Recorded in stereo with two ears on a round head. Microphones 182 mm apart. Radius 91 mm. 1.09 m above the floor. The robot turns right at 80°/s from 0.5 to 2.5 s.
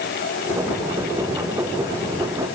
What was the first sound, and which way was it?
Only background noise.